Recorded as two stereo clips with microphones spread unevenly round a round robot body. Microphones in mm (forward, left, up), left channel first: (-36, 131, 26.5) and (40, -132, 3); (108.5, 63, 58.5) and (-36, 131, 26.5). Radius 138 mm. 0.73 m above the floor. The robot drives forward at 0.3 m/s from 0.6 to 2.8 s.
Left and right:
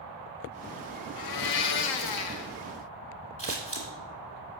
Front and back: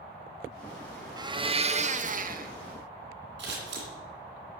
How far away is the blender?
About 0.6 m.